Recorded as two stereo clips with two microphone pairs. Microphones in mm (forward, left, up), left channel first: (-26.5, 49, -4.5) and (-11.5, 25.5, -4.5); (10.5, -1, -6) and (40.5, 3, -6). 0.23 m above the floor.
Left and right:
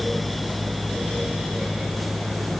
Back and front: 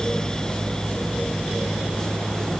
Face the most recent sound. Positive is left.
No sound to turn to.